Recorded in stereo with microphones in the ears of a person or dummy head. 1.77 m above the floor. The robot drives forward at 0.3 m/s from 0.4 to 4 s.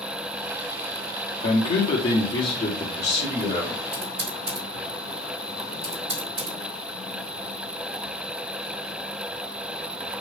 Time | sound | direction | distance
1.4 | a man speaking | 25° left (ahead or behind) | 0.8 m
3.9 | typing on a keyboard | 40° right (ahead or behind) | 2 m